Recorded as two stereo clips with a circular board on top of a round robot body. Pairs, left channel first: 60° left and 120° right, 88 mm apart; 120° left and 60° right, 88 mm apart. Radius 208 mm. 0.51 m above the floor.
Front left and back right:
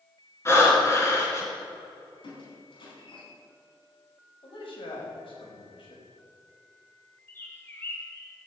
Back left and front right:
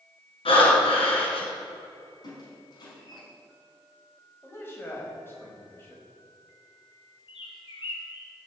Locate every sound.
0.5 s breathing: 120° left, 4.5 m
2.2 s a squeak: 80° left, 5 m
4.4 s a man speaking: 55° left, 5 m
7.3 s a bird: 125° left, 2.5 m